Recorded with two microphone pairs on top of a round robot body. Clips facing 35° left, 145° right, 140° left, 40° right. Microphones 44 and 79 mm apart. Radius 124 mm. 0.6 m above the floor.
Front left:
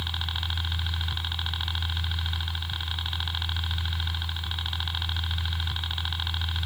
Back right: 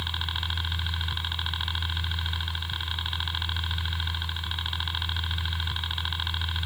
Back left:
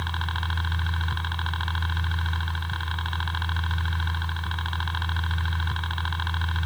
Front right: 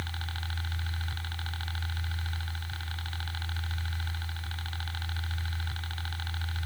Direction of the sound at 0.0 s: 145° left.